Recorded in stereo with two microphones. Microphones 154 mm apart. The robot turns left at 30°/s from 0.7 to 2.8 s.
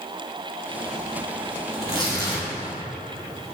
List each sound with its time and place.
1.7 s tearing paper: 20° right (ahead or behind), 2.5 m; by 2.5 s 40° right (ahead or behind), 2.5 m